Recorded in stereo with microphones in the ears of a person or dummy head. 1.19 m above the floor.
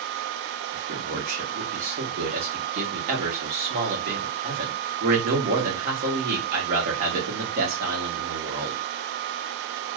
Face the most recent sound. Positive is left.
turn(degrees=-55)  # may be behind; listen again after turning